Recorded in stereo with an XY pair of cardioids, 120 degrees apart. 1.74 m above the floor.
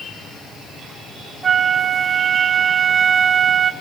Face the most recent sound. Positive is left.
turn(degrees=-15)